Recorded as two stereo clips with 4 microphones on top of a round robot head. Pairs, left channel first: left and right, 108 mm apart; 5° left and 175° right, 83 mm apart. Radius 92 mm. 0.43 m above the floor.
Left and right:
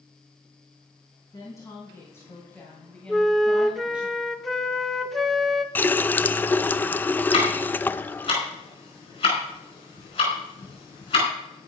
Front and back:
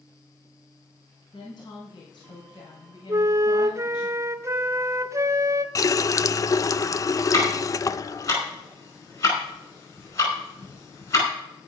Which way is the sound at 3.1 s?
Straight behind.